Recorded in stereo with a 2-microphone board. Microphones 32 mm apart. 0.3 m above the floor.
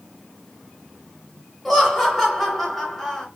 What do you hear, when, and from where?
1.6 s laughter: 5° left (ahead or behind), 1.1 m